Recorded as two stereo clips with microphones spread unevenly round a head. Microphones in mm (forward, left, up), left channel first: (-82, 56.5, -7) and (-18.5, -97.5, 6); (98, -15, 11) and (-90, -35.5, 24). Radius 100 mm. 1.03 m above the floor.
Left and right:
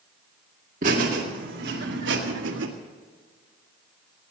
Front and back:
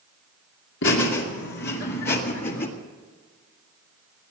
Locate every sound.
0.8 s laughter: 10° right, 2.5 m; by 2.7 s 40° right, 2.0 m